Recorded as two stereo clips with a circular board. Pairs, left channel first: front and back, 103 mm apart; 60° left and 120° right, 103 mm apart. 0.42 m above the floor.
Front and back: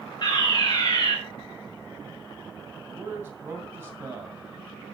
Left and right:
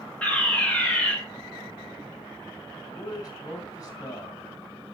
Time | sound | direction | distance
0.2 | a fire alarm | 10° right | 2.5 m
2.9 | a man speaking | 110° left | 2.5 m